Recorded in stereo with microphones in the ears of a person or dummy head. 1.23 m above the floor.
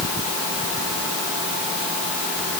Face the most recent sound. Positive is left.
No sound to turn to.